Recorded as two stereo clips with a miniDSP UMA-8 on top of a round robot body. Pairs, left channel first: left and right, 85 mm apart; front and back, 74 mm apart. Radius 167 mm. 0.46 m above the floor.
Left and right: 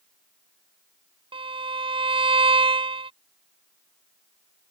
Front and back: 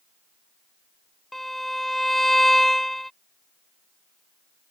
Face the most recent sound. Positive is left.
turn(degrees=-90)